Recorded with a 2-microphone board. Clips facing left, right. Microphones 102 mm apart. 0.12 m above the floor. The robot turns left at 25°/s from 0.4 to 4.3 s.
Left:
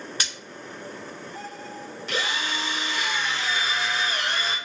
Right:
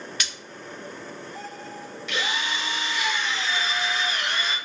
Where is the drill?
115° left, 1.0 m; by 4.5 s 60° left, 1.0 m.